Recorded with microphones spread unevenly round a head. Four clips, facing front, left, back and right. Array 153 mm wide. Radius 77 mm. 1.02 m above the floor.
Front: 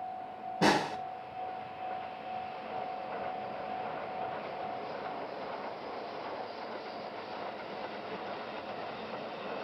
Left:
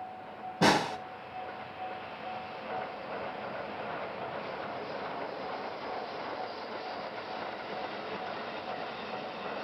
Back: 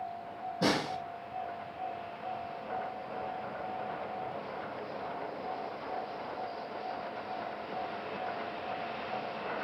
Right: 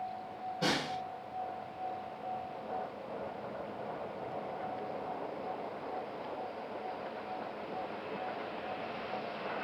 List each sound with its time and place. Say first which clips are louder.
0.6 s a snare drum: left 9 dB, front 3 dB; 70° left, 1.6 m